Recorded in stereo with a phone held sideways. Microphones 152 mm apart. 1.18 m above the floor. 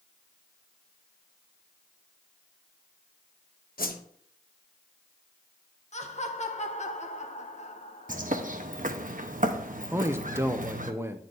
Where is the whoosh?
70° left (ahead or behind), 0.8 m.